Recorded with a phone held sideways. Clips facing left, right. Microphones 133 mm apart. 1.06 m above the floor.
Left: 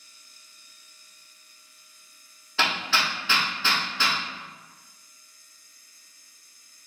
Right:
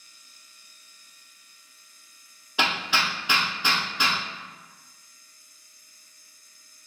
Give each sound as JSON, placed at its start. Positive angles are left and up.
{"t": 2.6, "sound": "hammering", "side_deg": -15, "distance_m": 0.8}